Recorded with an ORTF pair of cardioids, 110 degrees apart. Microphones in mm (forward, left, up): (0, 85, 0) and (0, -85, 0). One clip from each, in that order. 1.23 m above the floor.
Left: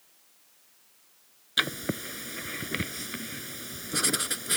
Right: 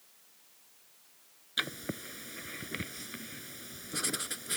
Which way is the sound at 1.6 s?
40° left.